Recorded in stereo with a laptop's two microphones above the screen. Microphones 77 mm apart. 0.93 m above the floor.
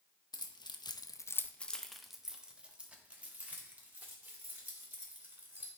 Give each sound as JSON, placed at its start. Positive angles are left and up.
{"t": 0.3, "sound": "keys jangling", "side_deg": 65, "distance_m": 0.7}